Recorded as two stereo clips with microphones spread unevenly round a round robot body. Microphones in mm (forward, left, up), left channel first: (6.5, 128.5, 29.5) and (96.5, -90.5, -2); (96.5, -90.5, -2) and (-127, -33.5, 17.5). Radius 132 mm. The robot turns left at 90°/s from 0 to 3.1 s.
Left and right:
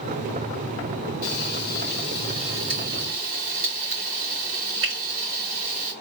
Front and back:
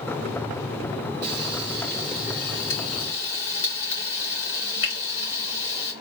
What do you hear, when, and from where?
1.2 s frying: 130° left, 3.5 m; by 5.9 s 40° right, 3.5 m